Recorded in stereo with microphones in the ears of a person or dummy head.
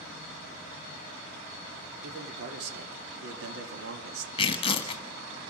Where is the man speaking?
60° right (ahead or behind), 3 m; by 4.3 s 85° right, 1.8 m.